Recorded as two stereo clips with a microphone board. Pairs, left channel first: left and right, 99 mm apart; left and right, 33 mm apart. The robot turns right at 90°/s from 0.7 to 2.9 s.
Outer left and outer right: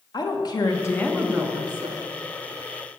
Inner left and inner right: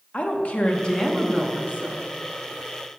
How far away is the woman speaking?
About 1.0 m.